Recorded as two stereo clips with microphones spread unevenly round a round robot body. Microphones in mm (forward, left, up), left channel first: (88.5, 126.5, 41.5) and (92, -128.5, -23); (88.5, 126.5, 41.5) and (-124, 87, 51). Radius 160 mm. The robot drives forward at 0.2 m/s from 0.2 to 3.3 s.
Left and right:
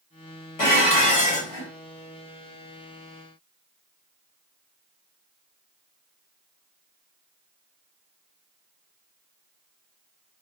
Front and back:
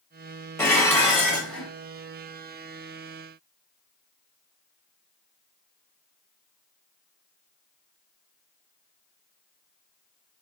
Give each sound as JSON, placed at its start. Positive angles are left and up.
{"t": 0.6, "sound": "dishes clattering", "azimuth_deg": 90, "distance_m": 1.6}